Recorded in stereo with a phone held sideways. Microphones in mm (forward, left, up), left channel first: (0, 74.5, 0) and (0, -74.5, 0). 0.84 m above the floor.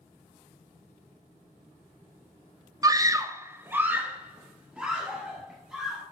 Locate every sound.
2.8 s a scream: 25° right (ahead or behind), 0.6 m; by 6.0 s 5° right (ahead or behind), 2.5 m